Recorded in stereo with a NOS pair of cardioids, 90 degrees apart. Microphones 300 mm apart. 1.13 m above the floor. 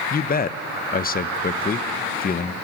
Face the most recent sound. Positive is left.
turn(degrees=30)